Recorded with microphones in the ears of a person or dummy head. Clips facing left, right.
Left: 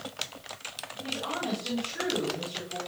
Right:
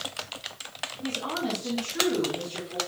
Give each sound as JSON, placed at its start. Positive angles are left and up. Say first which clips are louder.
{"t": 1.0, "sound": "a woman speaking", "louder": "right 3 dB", "side_deg": -50, "distance_m": 3.5}